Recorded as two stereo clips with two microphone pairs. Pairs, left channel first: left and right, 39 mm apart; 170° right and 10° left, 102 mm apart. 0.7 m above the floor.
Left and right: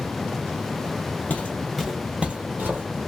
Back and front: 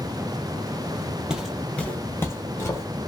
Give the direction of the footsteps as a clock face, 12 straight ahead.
9 o'clock.